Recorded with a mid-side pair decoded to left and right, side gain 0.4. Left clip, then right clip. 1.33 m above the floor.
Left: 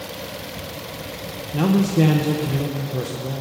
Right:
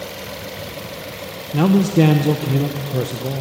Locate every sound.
1.5 s a man speaking: 35° right, 1.0 m